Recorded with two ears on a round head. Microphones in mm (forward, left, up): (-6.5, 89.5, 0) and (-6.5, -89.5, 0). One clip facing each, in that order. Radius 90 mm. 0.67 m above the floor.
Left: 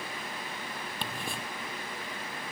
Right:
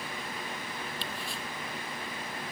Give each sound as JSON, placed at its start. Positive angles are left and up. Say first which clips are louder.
{"t": 1.0, "sound": "ticking", "louder": "left 2 dB", "side_deg": 45}